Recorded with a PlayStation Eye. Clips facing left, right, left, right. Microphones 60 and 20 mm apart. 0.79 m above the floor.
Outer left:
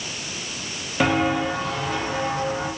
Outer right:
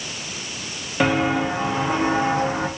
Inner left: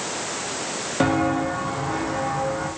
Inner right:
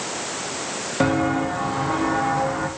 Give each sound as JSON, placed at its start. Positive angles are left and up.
{"t": 1.0, "sound": "footsteps", "side_deg": 0, "distance_m": 1.3}